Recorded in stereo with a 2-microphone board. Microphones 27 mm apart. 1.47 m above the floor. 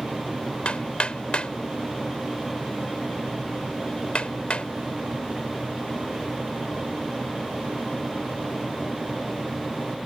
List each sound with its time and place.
0.7 s hammering: 45° left (ahead or behind)